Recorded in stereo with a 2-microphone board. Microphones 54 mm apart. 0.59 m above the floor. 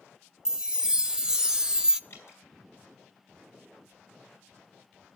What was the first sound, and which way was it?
A chime, 15° right (ahead or behind).